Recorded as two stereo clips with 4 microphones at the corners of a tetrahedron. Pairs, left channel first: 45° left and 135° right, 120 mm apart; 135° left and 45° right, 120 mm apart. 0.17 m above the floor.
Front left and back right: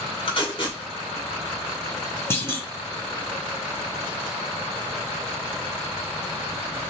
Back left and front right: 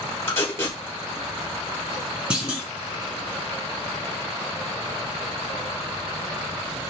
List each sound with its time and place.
0.3 s tape being pulled: 70° left, 3 m
2.3 s a clunk: 20° left, 1.6 m